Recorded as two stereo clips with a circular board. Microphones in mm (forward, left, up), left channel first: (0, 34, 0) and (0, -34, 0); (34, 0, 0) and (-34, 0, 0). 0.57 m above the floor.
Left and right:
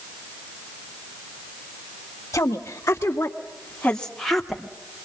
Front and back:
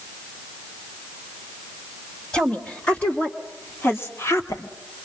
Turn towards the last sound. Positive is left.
turn(degrees=-10)